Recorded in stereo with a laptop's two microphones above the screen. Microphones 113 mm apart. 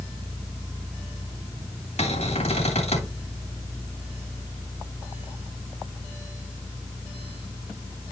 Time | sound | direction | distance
2.0 | a cupboard door | 70° left (ahead or behind) | 2.5 m